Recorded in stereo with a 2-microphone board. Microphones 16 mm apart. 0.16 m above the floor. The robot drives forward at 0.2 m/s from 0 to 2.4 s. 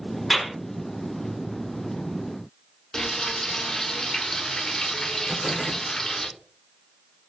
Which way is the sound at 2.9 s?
40° left (ahead or behind).